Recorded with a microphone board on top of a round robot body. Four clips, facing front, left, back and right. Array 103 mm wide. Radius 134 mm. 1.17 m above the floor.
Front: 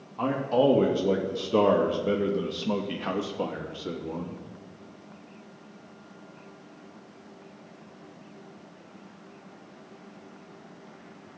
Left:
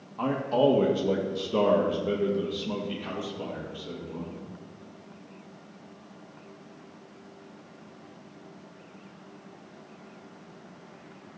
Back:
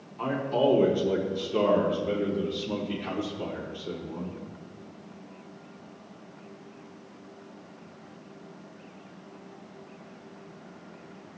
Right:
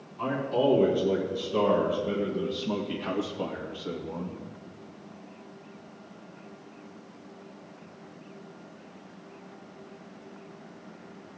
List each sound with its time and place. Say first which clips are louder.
0.2 s a man speaking: left 2 dB, front 2 dB; 40° left, 1.9 m; by 4.4 s 35° right, 1.9 m